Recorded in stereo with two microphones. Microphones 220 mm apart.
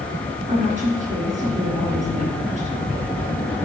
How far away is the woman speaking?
About 3.5 m.